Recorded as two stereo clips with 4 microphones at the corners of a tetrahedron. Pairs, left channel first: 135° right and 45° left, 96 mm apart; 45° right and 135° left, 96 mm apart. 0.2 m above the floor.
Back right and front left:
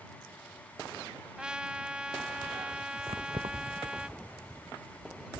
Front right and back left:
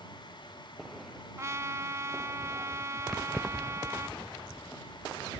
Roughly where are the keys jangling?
Ahead left.